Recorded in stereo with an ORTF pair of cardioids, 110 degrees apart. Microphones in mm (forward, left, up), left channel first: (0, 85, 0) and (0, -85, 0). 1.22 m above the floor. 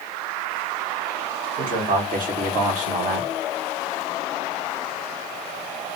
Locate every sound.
1.6 s a man speaking: 65° right, 2.5 m; by 3.3 s 45° right, 1.5 m